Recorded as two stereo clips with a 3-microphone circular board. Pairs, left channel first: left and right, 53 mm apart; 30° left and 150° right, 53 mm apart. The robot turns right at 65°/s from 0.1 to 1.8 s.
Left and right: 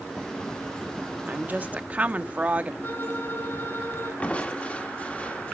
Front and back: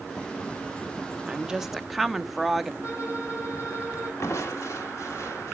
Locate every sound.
1.3 s a woman speaking: 100° right, 0.5 m; by 2.7 s 65° right, 0.5 m
2.8 s a violin: 45° left, 3.5 m
4.2 s crushing: 25° left, 1.4 m